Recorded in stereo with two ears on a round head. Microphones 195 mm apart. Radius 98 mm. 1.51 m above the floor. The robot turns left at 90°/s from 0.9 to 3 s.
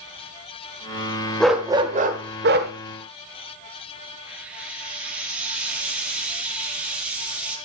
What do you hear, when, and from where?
1.4 s a dog barking: 5° left, 1.7 m; by 2.7 s 115° right, 1.7 m
4.3 s frying: 5° right (ahead or behind), 3 m